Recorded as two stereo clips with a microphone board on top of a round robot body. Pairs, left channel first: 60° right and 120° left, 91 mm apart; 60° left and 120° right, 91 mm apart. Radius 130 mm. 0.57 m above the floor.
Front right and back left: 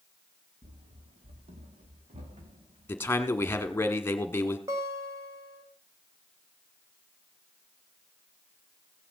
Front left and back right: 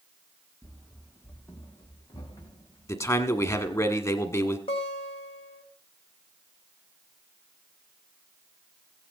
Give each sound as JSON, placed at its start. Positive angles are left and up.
{"t": 0.6, "sound": "running footsteps", "azimuth_deg": 150, "distance_m": 1.0}
{"t": 2.9, "sound": "a man speaking", "azimuth_deg": 5, "distance_m": 1.7}
{"t": 4.7, "sound": "a guitar", "azimuth_deg": 60, "distance_m": 2.0}